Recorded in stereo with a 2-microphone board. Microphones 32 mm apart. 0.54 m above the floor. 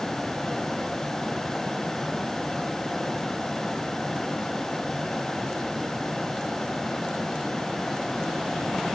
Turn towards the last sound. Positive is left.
No sound to turn to.